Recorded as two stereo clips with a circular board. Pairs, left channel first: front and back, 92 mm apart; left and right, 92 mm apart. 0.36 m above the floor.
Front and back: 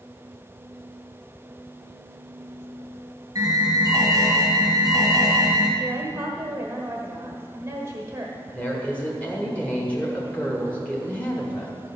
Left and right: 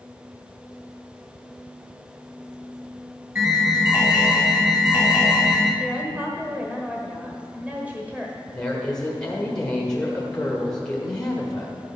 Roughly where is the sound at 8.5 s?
Ahead left.